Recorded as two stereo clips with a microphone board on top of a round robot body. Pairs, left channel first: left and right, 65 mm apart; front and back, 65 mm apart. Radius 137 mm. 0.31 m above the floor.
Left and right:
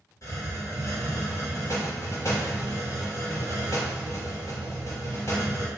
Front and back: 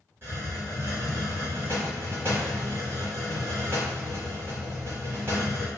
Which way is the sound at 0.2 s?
125° left.